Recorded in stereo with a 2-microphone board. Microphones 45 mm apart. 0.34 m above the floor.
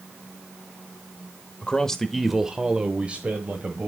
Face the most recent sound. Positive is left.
turn(degrees=-35)  # may be behind; listen again after turning